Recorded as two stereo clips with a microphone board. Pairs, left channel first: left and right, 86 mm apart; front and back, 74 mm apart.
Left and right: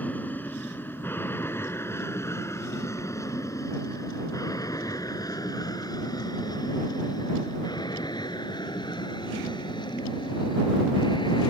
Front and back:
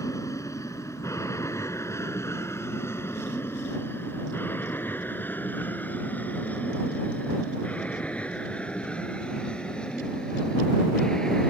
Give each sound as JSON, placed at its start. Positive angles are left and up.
{"t": 0.0, "sound": "an aircraft", "azimuth_deg": 25}